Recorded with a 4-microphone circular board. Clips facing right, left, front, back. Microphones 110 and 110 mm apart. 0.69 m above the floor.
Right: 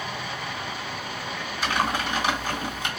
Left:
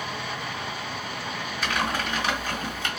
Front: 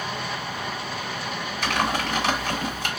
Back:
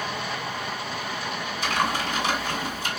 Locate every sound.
1.6 s typing on a keyboard: 20° right, 1.4 m